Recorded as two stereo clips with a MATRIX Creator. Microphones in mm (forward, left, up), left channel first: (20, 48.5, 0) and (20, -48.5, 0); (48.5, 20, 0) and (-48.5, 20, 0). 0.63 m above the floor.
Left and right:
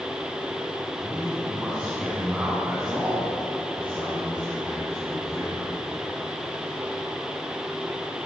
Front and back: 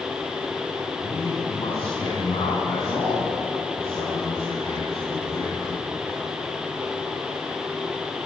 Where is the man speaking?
5° right, 5 m; by 5.7 s 10° right, 9 m.